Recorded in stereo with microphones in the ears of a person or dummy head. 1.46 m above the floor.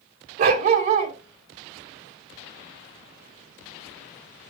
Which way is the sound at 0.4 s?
35° right (ahead or behind).